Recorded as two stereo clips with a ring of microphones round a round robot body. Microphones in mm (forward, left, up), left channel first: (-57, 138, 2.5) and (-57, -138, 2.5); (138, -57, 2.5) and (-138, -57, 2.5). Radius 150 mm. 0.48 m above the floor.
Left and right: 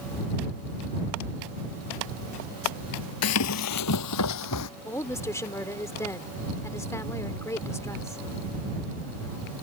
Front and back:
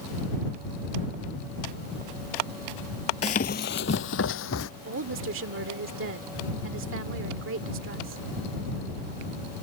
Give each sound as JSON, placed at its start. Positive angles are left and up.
{"t": 3.2, "sound": "running footsteps", "azimuth_deg": 65}
{"t": 4.8, "sound": "a woman speaking", "azimuth_deg": 165}